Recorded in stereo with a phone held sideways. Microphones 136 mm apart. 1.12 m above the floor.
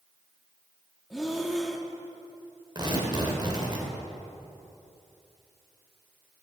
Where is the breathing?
Centre (ahead or behind), 1.1 m.